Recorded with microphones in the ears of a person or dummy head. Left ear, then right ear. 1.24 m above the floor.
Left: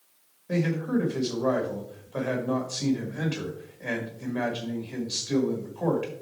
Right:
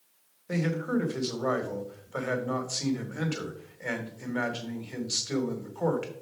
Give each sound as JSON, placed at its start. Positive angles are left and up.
{"t": 0.5, "sound": "a man speaking", "side_deg": -30, "distance_m": 1.4}